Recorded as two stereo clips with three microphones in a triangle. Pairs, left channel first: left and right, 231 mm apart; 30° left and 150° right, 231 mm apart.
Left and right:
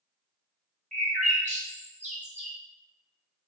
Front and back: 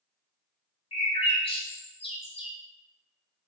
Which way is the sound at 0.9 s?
35° right.